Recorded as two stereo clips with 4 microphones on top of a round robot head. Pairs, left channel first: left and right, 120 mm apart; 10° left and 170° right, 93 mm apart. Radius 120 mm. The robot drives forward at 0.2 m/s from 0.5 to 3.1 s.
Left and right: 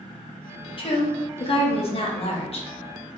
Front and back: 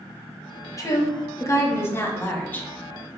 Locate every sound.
0.8 s a woman speaking: 60° left, 1.1 m; by 2.7 s 85° left, 0.9 m